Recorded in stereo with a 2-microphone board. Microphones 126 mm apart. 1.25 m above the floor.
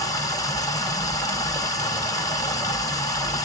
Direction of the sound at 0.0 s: 25° left (ahead or behind).